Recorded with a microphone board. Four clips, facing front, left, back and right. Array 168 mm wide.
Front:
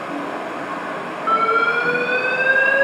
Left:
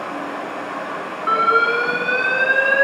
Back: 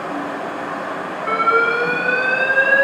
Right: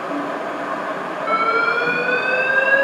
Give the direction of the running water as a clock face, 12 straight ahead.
2 o'clock.